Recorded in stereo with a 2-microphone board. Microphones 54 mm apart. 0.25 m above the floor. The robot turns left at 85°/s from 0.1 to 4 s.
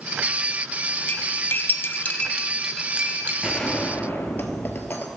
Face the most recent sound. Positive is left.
turn(degrees=140)